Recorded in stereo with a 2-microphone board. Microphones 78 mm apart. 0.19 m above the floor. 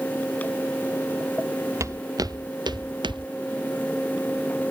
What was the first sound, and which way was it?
Footsteps, 40° right (ahead or behind).